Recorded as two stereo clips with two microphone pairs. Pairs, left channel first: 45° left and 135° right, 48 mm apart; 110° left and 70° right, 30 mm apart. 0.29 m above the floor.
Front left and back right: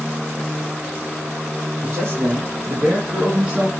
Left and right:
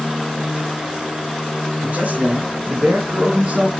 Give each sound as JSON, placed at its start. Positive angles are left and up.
{"t": 1.8, "sound": "a man speaking", "azimuth_deg": -90, "distance_m": 5.0}